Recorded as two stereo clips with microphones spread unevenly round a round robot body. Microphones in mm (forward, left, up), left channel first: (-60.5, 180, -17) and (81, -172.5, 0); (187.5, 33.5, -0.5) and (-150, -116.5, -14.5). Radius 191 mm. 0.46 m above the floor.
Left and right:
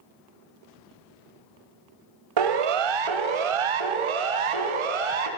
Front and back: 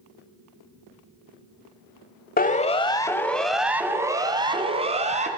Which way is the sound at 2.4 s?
40° right.